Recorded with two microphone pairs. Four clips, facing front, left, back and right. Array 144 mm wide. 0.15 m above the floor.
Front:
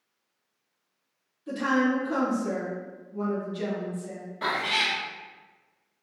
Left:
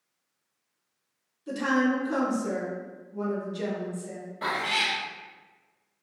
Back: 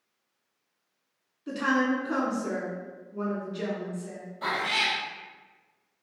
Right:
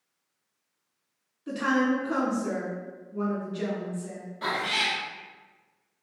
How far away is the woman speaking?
About 1.1 m.